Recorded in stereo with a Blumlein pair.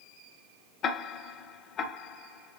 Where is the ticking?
30° left, 0.6 m.